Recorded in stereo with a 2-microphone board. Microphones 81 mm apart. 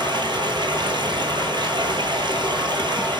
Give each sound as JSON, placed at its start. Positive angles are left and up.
{"t": 0.0, "sound": "running water", "side_deg": -75, "distance_m": 0.9}